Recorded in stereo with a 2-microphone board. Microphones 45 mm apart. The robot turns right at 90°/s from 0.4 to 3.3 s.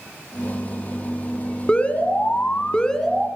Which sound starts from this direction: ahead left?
An alarm, at 1.7 s.